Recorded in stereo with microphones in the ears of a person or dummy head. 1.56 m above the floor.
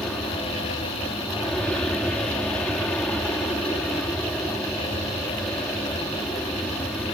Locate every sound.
0.0 s an aircraft: 5° left (ahead or behind)